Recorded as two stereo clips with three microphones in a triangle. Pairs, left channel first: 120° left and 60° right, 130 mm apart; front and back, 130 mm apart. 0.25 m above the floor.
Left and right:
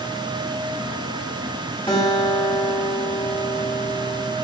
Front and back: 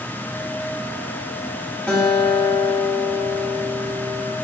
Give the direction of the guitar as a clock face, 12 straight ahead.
9 o'clock.